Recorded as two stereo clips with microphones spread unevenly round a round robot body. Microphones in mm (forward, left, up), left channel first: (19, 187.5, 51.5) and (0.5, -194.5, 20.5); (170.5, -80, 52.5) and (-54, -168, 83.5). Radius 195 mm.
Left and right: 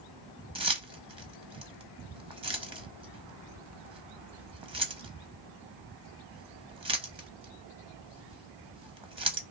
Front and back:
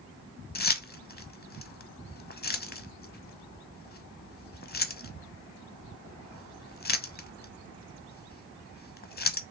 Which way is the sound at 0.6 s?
20° right.